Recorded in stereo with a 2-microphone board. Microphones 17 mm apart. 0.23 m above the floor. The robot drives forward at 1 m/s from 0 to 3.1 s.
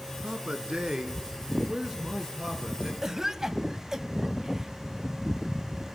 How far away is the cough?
About 1.2 m.